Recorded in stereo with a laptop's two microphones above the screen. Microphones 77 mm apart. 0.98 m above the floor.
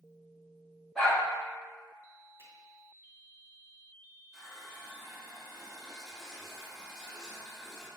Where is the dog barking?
10° left (ahead or behind), 1.7 m.